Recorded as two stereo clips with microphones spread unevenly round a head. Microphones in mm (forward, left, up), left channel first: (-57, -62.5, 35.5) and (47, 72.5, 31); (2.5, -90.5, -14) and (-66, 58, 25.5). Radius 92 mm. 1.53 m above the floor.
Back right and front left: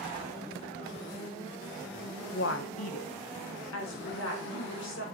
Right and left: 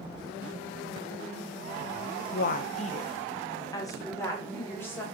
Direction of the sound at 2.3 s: 100° right.